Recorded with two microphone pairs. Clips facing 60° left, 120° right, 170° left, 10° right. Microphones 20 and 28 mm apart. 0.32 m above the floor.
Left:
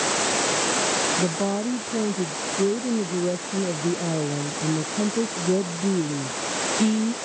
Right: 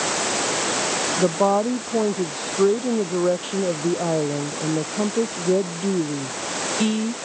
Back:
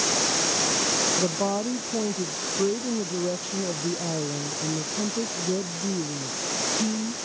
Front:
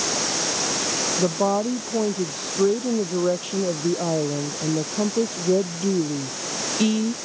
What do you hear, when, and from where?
1.2 s a woman speaking: 80° right; by 7.2 s 50° right